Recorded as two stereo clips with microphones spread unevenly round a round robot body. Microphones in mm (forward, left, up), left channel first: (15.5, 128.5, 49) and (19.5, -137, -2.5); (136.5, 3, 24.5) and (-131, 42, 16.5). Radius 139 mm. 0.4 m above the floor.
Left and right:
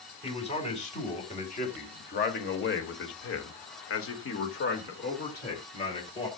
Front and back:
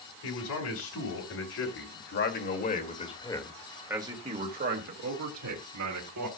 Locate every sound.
0.2 s a man speaking: 20° left, 4 m; by 6.3 s 165° left, 3 m